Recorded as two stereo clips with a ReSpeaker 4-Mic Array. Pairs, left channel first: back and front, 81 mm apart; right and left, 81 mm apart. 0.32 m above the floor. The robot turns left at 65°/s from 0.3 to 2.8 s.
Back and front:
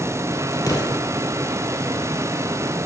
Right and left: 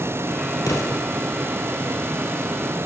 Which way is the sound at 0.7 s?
135° right.